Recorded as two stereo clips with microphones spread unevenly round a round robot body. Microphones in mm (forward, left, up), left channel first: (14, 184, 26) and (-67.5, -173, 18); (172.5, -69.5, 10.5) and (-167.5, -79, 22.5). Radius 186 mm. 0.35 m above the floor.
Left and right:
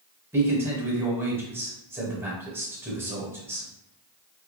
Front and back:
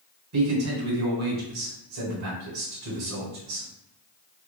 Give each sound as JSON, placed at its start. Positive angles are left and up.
{"t": 0.3, "sound": "a man speaking", "azimuth_deg": 175, "distance_m": 1.4}